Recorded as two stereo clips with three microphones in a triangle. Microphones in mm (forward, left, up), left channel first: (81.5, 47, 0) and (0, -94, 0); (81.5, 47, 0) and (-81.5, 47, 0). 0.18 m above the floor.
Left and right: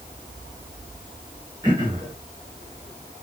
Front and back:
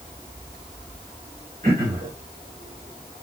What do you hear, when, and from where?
1.6 s throat clearing: 175° left, 2.5 m